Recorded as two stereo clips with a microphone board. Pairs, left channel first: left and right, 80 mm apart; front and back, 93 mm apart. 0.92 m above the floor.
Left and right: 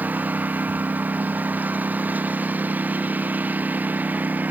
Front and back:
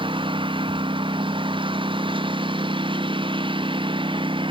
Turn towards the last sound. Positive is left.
turn(degrees=-160)